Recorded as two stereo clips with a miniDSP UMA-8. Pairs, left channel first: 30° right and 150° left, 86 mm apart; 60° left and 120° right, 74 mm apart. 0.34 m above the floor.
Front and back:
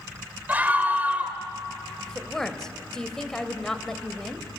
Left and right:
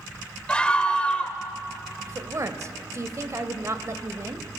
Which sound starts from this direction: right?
A woman speaking, at 2.1 s.